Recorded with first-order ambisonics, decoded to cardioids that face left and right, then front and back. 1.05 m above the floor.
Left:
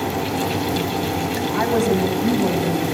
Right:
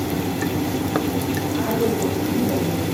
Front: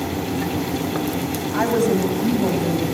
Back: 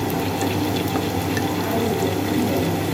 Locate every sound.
1.5 s a woman speaking: 35° left, 8 m; by 2.9 s 40° left, 9 m